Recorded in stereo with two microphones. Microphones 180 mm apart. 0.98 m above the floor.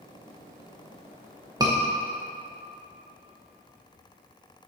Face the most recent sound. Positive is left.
turn(degrees=-20)  # may be behind; listen again after turning